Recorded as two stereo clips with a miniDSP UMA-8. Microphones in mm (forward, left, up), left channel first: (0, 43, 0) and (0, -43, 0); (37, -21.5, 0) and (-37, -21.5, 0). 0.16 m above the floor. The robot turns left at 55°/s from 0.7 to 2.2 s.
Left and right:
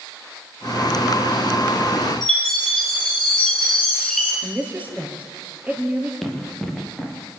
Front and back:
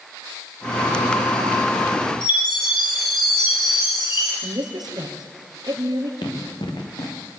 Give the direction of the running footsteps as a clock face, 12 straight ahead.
12 o'clock.